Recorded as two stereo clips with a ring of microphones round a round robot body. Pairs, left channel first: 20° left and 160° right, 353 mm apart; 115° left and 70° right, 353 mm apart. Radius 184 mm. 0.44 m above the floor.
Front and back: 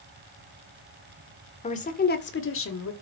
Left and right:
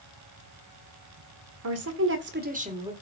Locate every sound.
1.6 s a woman speaking: 45° right, 2.0 m; by 2.9 s 5° left, 1.8 m